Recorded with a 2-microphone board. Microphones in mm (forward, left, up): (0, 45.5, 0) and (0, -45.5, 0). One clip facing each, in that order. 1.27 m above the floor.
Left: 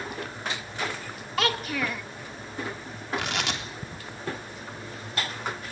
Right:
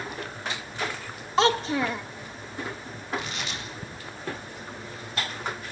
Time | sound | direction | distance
1.4 | a child speaking | 25° right (ahead or behind) | 0.6 m
3.1 | tearing paper | 80° left | 3.5 m